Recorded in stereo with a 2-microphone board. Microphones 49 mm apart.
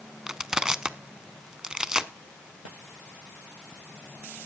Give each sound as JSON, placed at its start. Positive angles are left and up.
{"t": 0.3, "sound": "crushing", "side_deg": -15, "distance_m": 0.5}